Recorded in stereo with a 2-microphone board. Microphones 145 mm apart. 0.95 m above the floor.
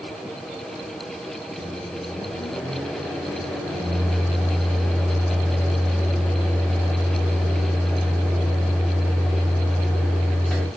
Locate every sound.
1.6 s a microwave: 5° left (ahead or behind), 0.8 m